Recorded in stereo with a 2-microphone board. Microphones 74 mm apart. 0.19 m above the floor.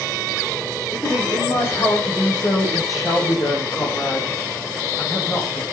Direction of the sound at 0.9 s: 55° left (ahead or behind).